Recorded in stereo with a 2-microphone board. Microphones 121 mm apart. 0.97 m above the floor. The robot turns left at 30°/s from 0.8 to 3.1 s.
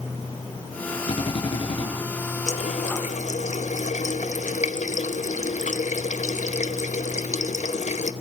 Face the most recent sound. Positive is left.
turn(degrees=80)